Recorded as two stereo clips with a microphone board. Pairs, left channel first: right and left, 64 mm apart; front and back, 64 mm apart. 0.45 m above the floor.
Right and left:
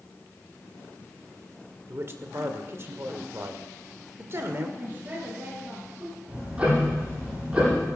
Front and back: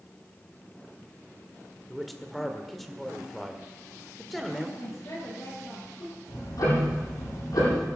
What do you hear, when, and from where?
1.9 s a man speaking: 85° left, 1.7 m
4.8 s a woman speaking: 25° left, 8 m
6.3 s ticking: 15° left, 10 m